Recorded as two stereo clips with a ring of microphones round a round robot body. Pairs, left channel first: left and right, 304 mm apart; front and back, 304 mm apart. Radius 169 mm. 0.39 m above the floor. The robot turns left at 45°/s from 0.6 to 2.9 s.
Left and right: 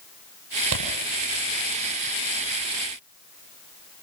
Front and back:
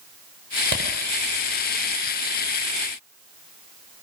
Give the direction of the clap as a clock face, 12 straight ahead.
4 o'clock.